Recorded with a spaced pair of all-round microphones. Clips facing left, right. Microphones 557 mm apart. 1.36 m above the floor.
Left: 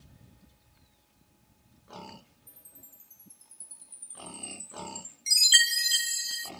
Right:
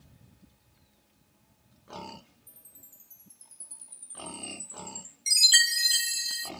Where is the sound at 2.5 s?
20° right (ahead or behind), 0.8 m.